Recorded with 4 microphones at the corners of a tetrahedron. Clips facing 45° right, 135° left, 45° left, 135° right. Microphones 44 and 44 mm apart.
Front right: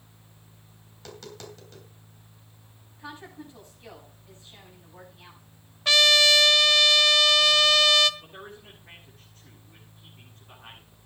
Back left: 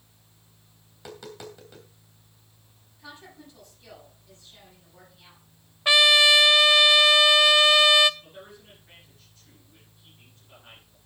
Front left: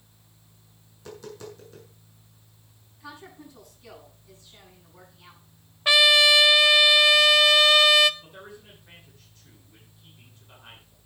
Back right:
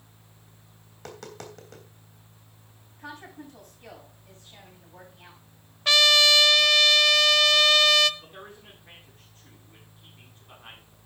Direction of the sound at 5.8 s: 95° left.